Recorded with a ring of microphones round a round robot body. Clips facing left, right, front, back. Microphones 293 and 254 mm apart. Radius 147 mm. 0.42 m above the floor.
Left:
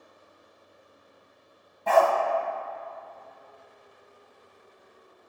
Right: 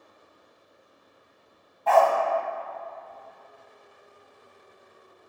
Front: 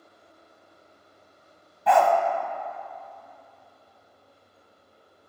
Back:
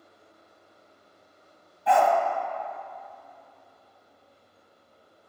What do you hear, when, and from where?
1.9 s a dog barking: 25° left, 1.3 m